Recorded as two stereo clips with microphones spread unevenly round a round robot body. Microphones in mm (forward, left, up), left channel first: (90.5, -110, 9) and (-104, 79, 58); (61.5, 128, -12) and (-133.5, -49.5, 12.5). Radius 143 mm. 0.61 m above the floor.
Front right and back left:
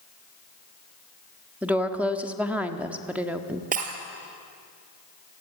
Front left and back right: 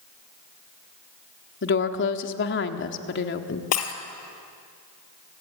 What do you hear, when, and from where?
1.6 s a woman speaking: 40° left, 1.5 m
3.7 s breaking glass: 75° left, 3 m